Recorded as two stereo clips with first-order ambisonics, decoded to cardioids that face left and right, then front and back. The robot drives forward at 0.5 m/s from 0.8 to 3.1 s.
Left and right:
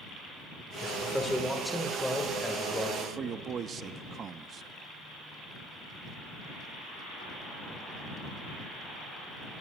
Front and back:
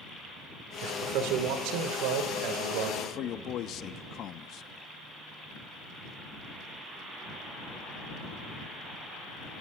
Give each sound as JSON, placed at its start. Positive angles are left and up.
{"t": 0.8, "sound": "a man speaking", "azimuth_deg": 175, "distance_m": 2.0}
{"t": 3.0, "sound": "a man speaking", "azimuth_deg": -35, "distance_m": 0.8}